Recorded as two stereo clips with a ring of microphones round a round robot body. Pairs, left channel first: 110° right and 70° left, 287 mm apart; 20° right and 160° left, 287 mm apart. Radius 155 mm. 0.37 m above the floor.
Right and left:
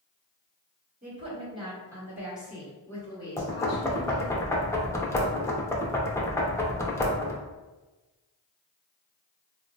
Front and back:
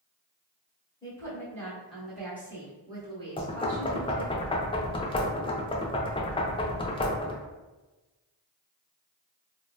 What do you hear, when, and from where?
1.0 s a woman speaking: 45° left, 1.5 m; by 4.4 s 155° right, 1.7 m
3.4 s knocking: 50° right, 0.6 m